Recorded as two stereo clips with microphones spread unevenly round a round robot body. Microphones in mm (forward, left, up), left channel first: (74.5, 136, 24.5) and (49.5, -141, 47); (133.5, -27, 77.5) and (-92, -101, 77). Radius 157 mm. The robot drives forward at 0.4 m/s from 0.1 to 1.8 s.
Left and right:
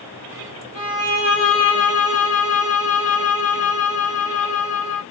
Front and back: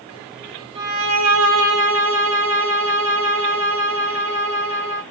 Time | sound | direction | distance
0.8 | a violin | 170° right | 1.7 m